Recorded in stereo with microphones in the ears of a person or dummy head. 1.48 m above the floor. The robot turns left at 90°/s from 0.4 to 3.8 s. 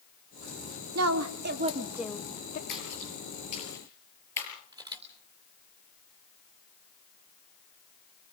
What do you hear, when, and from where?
0.9 s a woman speaking: 80° right, 1.2 m; by 2.6 s 135° left, 1.2 m
2.7 s a splash: 60° left (ahead or behind), 7.5 m; by 4.5 s 20° left (ahead or behind), 7.5 m
4.7 s a camera shutter: 25° right (ahead or behind), 3.5 m